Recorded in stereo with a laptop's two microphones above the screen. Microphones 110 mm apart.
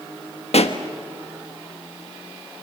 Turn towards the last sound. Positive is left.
turn(degrees=70)  # may be behind; listen again after turning